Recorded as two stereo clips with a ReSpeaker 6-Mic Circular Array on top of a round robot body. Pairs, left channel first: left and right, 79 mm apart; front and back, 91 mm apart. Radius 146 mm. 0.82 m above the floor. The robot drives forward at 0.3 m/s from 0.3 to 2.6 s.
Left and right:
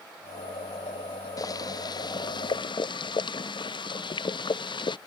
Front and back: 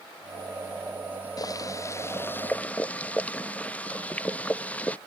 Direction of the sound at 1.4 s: 50° left.